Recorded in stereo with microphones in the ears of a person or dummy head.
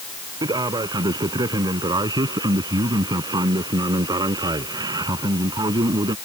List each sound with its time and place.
0.4 s a man speaking: 20° right (ahead or behind)